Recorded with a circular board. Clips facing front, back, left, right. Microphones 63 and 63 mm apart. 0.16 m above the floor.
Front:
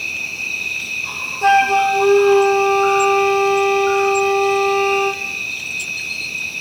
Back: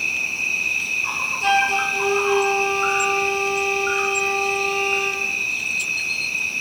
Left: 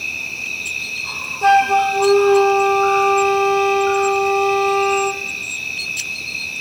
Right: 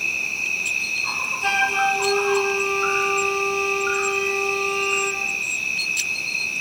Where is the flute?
45° left, 1.3 m.